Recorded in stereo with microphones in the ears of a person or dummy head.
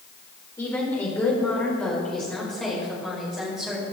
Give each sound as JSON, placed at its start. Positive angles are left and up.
{"t": 0.6, "sound": "a woman speaking", "side_deg": 20, "distance_m": 4.0}